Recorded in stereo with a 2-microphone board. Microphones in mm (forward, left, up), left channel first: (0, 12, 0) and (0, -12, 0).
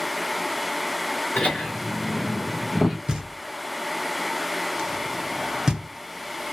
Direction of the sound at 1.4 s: 55° left (ahead or behind).